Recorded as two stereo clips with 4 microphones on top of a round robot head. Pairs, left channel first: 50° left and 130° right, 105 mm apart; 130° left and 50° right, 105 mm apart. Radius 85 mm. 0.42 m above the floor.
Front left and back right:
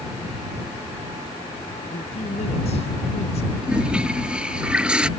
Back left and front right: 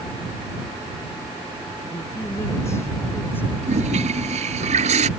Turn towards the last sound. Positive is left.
turn(degrees=-50)